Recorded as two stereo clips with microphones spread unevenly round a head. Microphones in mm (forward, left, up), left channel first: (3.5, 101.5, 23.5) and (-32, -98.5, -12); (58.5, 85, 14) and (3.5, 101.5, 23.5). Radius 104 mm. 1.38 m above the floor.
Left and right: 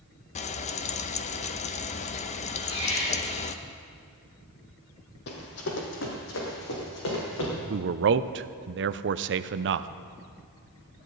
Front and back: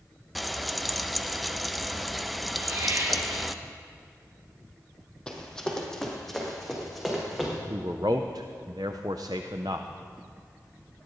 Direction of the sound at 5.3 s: 65° left.